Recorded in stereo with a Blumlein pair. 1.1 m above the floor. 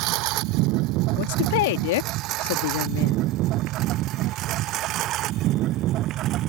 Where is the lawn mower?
40° right; by 6.5 s 35° right.